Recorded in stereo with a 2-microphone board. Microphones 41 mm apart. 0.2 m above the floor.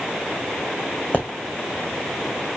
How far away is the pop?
About 2 m.